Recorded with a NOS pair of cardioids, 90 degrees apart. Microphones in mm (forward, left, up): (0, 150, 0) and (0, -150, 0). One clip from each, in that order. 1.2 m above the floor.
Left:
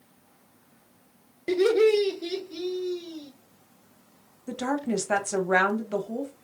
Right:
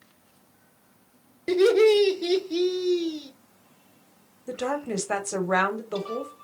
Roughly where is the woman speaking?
Ahead.